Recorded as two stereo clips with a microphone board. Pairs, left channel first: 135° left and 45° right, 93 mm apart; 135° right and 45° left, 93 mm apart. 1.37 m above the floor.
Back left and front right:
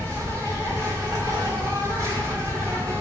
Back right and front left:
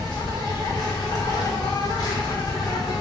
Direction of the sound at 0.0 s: 95° right.